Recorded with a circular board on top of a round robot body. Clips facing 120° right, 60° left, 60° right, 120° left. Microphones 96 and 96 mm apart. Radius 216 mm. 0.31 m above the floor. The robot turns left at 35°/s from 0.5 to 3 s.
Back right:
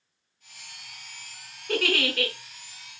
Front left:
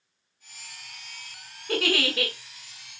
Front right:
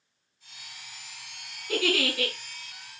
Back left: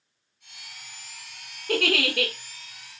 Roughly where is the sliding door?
I don't hear a sliding door.